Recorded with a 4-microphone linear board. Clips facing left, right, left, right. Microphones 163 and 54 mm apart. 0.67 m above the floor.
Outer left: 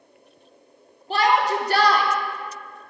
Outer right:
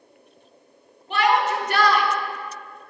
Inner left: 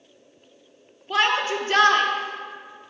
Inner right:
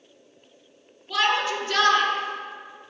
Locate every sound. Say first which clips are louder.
1.1 s a shout: even, inner left 1 dB; 35° left (ahead or behind), 1.3 m